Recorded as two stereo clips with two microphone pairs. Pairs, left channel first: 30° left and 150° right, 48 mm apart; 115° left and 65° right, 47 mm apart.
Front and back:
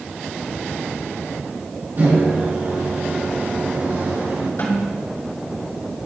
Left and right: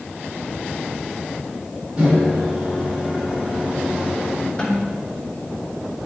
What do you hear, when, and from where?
2.0 s a microwave: 120° right, 2.5 m
4.6 s a snare drum: 35° left, 3.5 m